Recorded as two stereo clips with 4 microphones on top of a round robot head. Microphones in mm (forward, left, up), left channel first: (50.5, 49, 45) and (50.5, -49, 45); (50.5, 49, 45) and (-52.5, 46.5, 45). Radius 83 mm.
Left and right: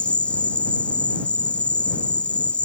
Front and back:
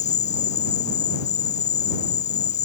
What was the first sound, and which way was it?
An insect, 10° left.